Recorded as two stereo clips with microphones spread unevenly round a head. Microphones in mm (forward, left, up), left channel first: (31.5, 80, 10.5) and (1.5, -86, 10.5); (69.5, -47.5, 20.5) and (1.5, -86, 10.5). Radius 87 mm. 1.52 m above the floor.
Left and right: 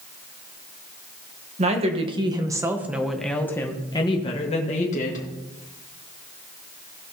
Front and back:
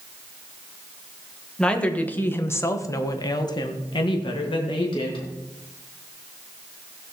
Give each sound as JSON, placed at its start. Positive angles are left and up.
{"t": 1.6, "sound": "a woman speaking", "azimuth_deg": -50, "distance_m": 1.8}